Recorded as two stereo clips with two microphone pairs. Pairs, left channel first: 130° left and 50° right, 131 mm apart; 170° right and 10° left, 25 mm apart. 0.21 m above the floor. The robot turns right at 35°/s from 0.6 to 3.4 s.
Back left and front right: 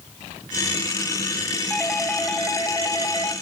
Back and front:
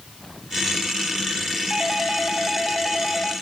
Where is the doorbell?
50° left, 1.6 m; by 3.3 s 110° left, 1.6 m.